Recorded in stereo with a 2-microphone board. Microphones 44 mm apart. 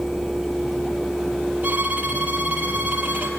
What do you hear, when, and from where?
1.6 s a violin: 35° right (ahead or behind), 4 m